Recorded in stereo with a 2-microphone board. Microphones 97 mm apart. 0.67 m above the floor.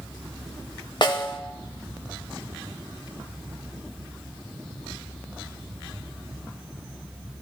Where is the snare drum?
50° left (ahead or behind), 1.4 m.